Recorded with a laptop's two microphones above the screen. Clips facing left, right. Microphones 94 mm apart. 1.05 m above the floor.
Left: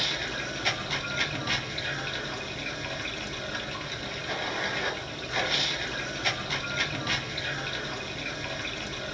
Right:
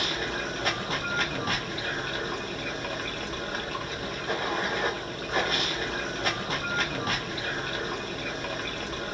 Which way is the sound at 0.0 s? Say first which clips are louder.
Right 3 dB; 40° right (ahead or behind).